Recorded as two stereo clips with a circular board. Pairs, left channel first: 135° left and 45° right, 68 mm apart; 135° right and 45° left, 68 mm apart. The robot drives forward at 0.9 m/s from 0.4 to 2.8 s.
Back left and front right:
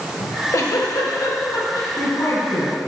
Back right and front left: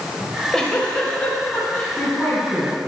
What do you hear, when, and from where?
0.2 s a giggle: 140° left, 0.9 m; by 2.8 s 170° left, 3 m